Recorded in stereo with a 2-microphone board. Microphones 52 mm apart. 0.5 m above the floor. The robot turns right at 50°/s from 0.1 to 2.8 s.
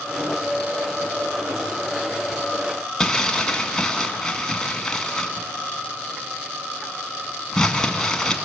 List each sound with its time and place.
3.0 s crumpling: 10° left (ahead or behind), 1.9 m